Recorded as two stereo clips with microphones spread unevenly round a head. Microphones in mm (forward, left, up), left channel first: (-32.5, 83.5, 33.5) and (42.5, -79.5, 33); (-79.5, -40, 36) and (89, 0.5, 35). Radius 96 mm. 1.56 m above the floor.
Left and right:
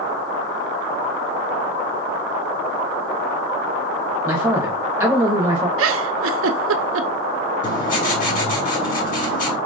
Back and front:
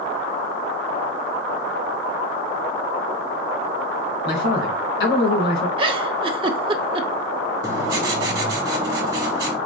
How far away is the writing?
About 1.6 m.